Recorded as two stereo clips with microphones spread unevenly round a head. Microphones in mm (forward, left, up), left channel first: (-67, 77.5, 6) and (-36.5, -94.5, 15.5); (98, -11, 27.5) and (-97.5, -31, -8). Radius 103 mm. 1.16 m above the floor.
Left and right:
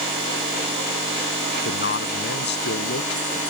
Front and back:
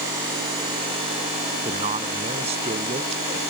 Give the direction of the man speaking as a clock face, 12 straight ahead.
8 o'clock.